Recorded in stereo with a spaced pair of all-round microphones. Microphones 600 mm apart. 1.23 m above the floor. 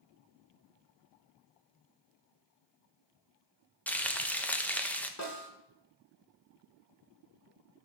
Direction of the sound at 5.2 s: 25° left (ahead or behind).